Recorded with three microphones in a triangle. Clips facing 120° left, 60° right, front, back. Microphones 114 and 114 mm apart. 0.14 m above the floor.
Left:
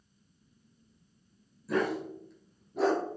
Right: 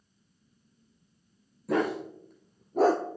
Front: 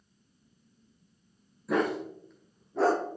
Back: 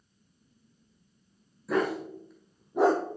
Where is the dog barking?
90° right, 2.5 m; by 3.0 s 120° right, 0.8 m.